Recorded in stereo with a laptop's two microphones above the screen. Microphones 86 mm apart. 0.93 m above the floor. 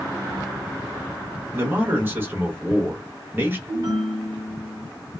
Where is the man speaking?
25° right (ahead or behind), 1.2 m.